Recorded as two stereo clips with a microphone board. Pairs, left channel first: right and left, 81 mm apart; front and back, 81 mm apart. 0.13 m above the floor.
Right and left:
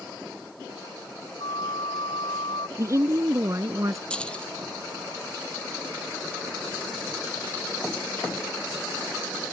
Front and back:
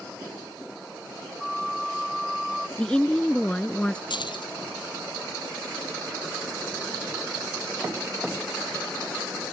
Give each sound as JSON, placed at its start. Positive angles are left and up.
{"t": 1.4, "sound": "a flute", "azimuth_deg": -90}
{"t": 2.8, "sound": "a woman speaking", "azimuth_deg": 75}
{"t": 4.1, "sound": "keys jangling", "azimuth_deg": -10}